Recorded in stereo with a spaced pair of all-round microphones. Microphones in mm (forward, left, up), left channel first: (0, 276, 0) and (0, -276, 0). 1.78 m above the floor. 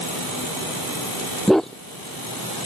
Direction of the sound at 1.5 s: Centre (ahead or behind).